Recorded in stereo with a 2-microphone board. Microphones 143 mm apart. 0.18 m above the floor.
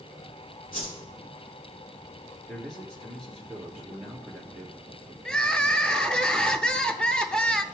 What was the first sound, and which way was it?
A whoosh, 80° left.